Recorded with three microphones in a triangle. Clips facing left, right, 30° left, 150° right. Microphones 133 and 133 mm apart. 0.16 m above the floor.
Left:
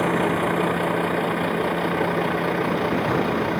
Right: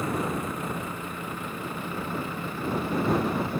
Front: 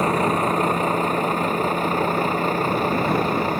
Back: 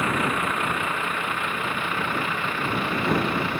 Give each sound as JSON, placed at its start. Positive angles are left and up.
{"t": 0.0, "sound": "a vehicle", "azimuth_deg": 80}